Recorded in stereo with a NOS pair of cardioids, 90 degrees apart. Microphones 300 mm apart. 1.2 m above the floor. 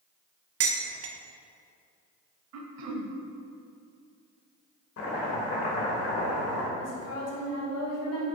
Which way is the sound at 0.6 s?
55° right.